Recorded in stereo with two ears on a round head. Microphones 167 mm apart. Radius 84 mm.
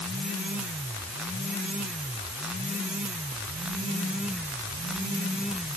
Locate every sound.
Only background noise.